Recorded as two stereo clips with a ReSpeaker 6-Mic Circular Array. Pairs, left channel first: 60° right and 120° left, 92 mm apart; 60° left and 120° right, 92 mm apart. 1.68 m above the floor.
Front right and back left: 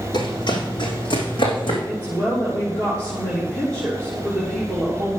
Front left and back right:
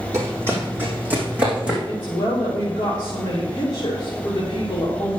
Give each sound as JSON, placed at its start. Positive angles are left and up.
{"t": 0.1, "sound": "running footsteps", "azimuth_deg": -65, "distance_m": 3.0}
{"t": 1.9, "sound": "a woman speaking", "azimuth_deg": 10, "distance_m": 3.0}